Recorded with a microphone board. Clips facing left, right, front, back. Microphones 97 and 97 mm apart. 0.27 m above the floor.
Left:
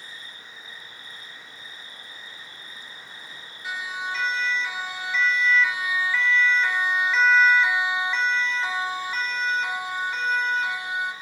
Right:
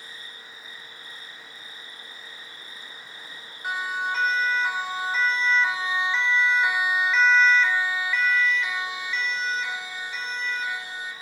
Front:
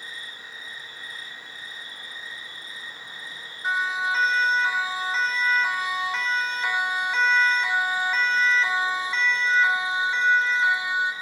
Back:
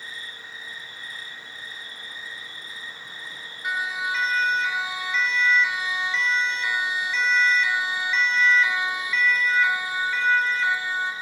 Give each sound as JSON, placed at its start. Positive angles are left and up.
{"t": 0.0, "sound": "an insect", "azimuth_deg": -90, "distance_m": 6.5}
{"t": 3.6, "sound": "a siren", "azimuth_deg": -60, "distance_m": 2.5}